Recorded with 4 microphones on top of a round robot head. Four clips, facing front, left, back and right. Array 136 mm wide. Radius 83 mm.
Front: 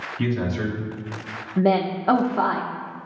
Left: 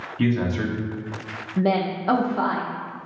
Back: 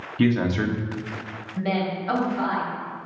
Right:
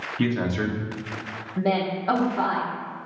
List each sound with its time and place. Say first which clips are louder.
0.2 s a man speaking: left 2 dB, back 4 dB; 160° right, 1.1 m
1.6 s a woman speaking: left 2 dB, front 6 dB; 15° left, 0.8 m